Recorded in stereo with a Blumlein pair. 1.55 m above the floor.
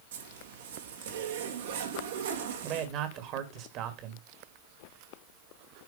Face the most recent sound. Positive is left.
turn(degrees=-40)